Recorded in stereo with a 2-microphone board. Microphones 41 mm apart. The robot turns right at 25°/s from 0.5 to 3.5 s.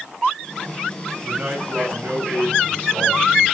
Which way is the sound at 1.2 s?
145° right.